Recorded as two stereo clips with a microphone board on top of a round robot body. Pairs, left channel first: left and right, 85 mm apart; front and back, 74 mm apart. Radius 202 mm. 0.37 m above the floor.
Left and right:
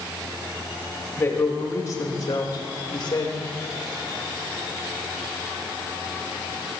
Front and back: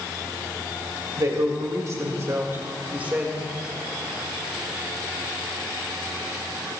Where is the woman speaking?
145° left, 2.5 m; by 3.4 s 105° left, 2 m.